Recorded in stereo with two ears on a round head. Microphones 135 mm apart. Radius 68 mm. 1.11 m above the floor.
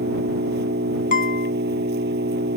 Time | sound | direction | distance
0.0 | an engine running | 85° right | ?
1.1 | a guitar | 65° left (ahead or behind) | ?